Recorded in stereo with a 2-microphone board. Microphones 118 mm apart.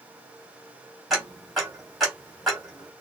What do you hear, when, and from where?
1.1 s ticking: centre (ahead or behind), 2.5 m